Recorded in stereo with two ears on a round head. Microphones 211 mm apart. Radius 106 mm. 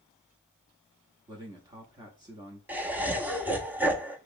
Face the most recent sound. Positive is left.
turn(degrees=-10)  # may be behind; listen again after turning